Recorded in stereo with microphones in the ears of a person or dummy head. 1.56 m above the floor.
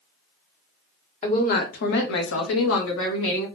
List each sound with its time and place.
1.2 s a woman speaking: 40° left (ahead or behind), 0.9 m; by 3.5 s 75° left (ahead or behind), 1.3 m